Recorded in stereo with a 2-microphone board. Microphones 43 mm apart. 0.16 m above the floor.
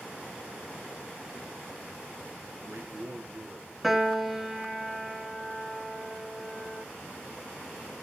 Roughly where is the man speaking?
Right.